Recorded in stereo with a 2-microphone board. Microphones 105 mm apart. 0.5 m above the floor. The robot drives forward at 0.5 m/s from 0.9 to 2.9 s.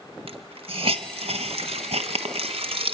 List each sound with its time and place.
0.3 s a hiss: 70° right (ahead or behind), 1.5 m